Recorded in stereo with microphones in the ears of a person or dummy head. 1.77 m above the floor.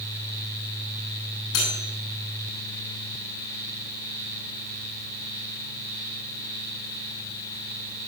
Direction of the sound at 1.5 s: 65° left (ahead or behind).